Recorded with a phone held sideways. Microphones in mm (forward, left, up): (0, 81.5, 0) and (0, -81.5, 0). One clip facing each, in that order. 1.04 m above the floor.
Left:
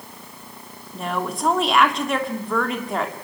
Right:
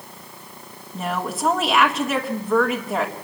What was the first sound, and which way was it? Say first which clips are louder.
A woman speaking: even; 5° right (ahead or behind).